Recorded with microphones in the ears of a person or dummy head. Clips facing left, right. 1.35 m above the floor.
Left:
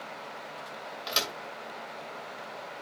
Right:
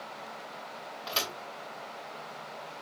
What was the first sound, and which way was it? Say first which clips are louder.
A thud: left 1 dB; 25° left (ahead or behind).